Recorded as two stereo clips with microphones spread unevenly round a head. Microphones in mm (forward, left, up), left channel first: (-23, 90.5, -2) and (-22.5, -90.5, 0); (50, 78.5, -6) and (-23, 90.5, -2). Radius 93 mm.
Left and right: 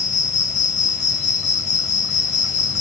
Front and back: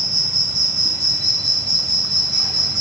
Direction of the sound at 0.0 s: 140° left.